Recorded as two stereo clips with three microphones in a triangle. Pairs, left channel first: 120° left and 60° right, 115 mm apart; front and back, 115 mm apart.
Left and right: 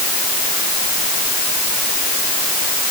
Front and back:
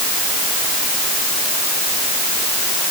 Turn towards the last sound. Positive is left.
No sound to turn to.